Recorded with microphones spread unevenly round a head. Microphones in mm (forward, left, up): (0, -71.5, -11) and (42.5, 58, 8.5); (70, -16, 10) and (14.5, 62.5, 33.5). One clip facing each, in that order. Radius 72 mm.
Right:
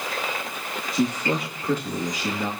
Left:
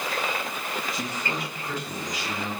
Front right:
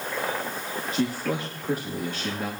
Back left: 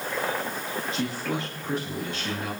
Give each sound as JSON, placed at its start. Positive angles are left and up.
{"t": 0.9, "sound": "a man speaking", "azimuth_deg": -120, "distance_m": 2.5}